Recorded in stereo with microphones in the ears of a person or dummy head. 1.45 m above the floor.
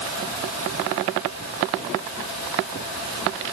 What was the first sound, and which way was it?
Only background noise.